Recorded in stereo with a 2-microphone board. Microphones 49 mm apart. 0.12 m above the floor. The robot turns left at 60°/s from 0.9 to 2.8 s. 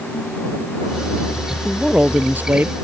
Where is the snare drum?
I don't hear a snare drum.